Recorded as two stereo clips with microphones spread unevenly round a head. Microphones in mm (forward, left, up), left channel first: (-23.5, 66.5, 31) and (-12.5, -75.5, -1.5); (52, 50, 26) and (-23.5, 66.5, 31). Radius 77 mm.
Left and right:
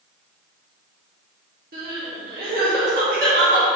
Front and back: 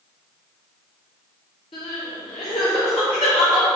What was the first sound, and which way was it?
Crying, 45° right.